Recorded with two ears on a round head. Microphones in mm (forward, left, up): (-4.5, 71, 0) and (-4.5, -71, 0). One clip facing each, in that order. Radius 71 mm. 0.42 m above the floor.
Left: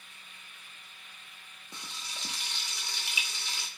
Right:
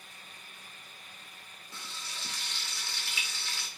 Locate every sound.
1.7 s frying: 15° left (ahead or behind), 0.6 m